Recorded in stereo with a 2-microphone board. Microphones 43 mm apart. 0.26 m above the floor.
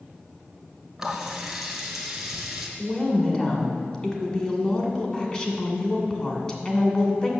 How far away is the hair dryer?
I don't hear a hair dryer.